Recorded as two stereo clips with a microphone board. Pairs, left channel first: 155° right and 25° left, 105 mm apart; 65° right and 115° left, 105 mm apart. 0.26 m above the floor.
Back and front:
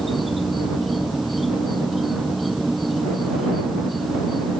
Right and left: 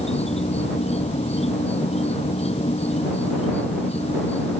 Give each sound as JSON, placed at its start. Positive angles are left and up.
{"t": 0.0, "sound": "an insect", "azimuth_deg": -70}